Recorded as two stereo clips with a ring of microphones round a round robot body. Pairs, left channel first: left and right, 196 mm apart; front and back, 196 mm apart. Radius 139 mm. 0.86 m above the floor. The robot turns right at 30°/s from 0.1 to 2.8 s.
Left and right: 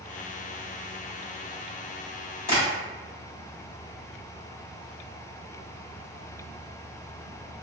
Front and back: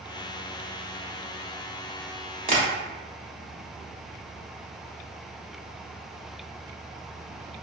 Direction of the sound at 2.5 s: 130° left.